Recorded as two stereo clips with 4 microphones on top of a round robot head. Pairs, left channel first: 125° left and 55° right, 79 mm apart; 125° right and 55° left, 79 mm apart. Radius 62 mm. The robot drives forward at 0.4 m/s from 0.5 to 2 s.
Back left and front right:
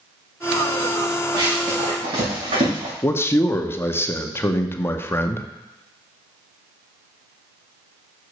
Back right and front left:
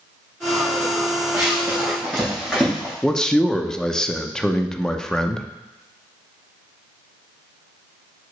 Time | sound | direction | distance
1.3 | running footsteps | 15° right | 5 m
3.0 | a man speaking | 160° left | 0.8 m